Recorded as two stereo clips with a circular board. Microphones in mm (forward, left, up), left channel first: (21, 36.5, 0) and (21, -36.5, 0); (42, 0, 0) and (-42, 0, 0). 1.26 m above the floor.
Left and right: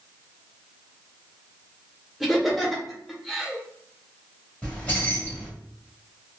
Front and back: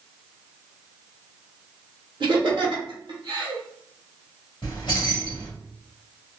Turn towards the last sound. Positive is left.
turn(degrees=25)